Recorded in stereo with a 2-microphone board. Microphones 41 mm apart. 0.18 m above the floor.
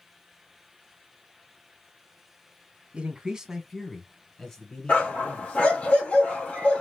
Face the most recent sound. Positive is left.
turn(degrees=30)  # may be behind; listen again after turning